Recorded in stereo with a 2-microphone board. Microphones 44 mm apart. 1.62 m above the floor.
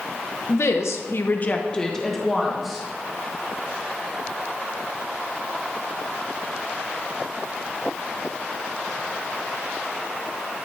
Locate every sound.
0.5 s a woman speaking: 65° left (ahead or behind), 1.2 m; by 2.8 s centre (ahead or behind), 2.5 m